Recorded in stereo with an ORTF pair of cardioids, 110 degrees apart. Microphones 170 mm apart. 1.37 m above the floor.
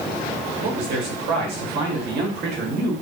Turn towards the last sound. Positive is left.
turn(degrees=-70)